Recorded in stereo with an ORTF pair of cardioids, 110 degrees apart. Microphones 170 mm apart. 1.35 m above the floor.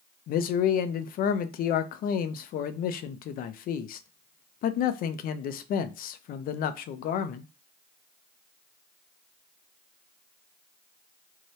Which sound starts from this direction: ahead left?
A man speaking, at 0.3 s.